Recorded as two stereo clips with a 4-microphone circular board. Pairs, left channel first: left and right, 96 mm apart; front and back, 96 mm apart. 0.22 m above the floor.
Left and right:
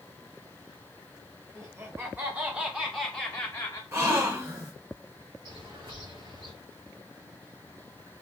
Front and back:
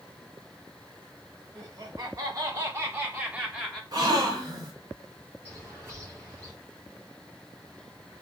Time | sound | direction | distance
1.6 | laughter | 145° right | 1.5 m
3.9 | a gasp | 145° right | 1.6 m
5.5 | a bird | 120° right | 3.5 m